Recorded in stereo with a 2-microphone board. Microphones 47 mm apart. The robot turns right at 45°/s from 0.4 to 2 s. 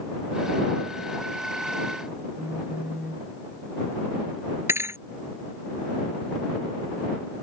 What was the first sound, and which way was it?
A phone buzzing, 30° right (ahead or behind).